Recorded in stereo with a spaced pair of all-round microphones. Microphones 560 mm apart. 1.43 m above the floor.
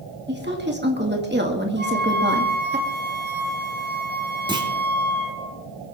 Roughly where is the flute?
Centre.